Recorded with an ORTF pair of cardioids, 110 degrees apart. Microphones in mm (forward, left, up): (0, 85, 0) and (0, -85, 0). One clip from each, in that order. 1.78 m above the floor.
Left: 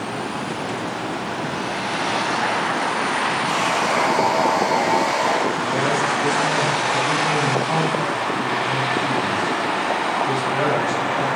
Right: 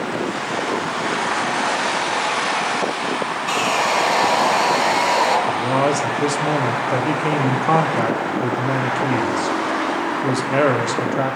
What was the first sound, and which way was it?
Sawing, 55° right.